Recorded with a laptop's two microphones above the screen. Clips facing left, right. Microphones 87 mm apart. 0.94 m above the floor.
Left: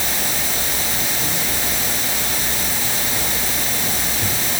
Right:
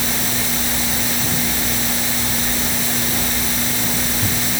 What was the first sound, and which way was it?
Only background noise.